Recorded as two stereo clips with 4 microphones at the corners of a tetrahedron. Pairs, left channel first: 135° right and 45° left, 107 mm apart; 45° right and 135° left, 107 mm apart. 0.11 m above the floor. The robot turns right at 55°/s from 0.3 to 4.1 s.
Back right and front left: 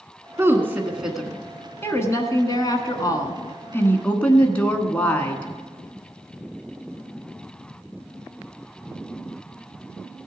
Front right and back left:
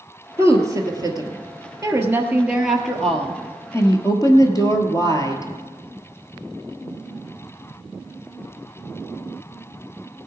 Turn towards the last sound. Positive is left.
turn(degrees=-65)